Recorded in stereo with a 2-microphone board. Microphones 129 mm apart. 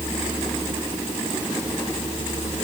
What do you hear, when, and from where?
Only background noise.